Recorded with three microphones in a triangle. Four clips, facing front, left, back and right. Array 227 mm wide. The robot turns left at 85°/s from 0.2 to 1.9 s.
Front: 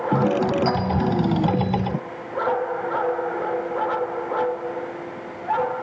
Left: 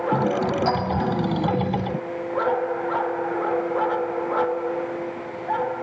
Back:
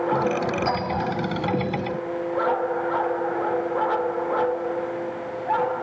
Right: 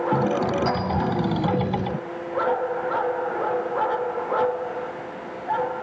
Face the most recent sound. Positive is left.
turn(degrees=-65)